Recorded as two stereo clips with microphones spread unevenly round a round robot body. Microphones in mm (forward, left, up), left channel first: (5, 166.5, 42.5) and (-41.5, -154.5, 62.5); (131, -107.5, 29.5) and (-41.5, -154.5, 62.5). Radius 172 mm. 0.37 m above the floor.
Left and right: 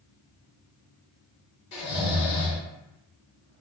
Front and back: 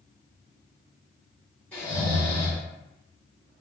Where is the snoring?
85° left, 1.7 m.